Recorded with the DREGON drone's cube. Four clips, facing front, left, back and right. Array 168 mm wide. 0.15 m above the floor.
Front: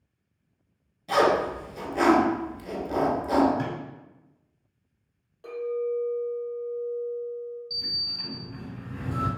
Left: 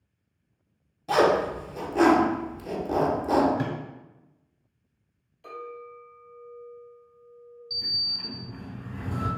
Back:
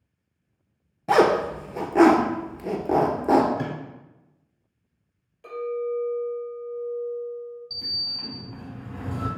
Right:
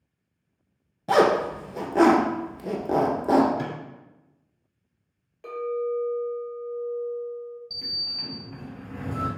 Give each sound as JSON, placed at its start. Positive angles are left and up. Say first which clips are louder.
{"t": 1.1, "sound": "a zipper", "louder": "right 2 dB, back 3 dB", "azimuth_deg": -145, "distance_m": 0.6}
{"t": 3.6, "sound": "a microwave", "louder": "left 1 dB, even", "azimuth_deg": 80, "distance_m": 0.9}
{"t": 5.4, "sound": "a clink", "louder": "right 12 dB, back 1 dB", "azimuth_deg": -70, "distance_m": 2.0}
{"t": 7.7, "sound": "a sliding door", "louder": "left 1 dB, even", "azimuth_deg": -115, "distance_m": 1.3}